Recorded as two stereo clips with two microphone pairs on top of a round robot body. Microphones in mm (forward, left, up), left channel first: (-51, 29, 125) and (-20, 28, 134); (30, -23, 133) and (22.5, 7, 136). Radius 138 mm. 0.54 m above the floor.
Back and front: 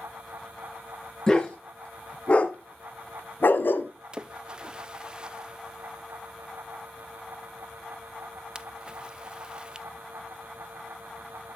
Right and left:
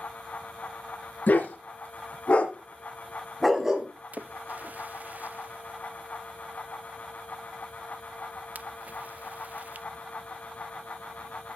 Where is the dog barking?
110° right, 3 m; by 3.9 s 170° left, 1.4 m.